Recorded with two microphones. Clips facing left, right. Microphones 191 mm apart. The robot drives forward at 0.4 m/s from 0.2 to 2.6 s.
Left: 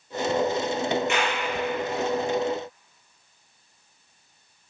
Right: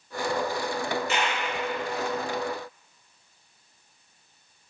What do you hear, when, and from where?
1.1 s a clap: 35° right (ahead or behind), 5.5 m